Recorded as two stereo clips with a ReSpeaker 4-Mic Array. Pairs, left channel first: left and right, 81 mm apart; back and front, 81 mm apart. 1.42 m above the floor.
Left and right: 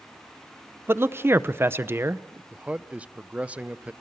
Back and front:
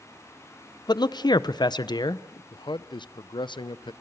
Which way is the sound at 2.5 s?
165° right.